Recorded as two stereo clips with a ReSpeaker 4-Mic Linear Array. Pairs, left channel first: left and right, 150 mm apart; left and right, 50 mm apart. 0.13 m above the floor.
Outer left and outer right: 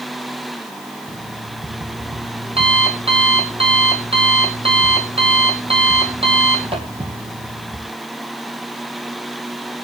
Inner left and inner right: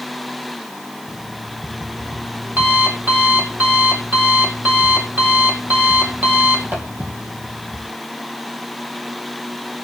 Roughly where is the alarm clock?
Right.